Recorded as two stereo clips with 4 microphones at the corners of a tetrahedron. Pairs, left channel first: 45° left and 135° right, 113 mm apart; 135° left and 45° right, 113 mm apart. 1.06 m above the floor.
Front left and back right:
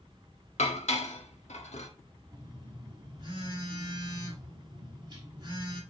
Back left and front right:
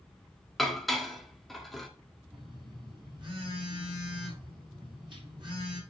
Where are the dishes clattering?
45° left, 1.3 m.